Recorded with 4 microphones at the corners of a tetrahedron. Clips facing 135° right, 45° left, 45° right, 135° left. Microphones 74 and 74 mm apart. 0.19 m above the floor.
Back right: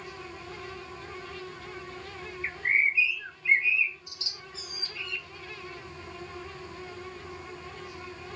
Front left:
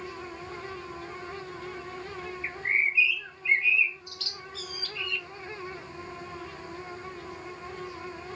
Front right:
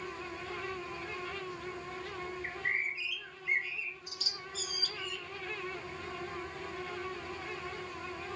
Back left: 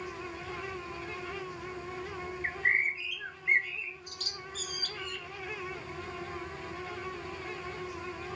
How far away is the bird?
About 0.7 m.